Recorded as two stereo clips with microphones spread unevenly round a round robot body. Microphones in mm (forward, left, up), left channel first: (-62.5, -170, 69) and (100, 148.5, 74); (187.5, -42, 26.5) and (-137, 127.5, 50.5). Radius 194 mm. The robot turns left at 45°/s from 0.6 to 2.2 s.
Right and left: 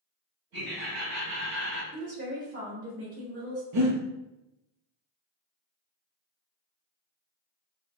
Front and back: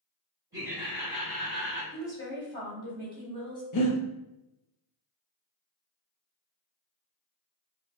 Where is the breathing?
15° left, 0.7 m.